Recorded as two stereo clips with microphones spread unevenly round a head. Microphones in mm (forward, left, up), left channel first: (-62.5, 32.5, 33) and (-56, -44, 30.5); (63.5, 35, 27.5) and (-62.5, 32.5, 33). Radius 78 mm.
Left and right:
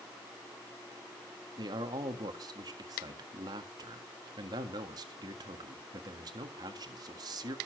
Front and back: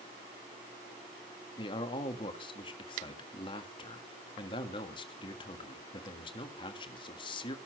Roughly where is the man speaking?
Ahead right.